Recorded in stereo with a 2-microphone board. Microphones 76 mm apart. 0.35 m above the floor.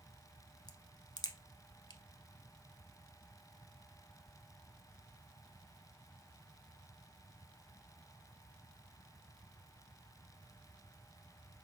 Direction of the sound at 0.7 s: 65° left (ahead or behind).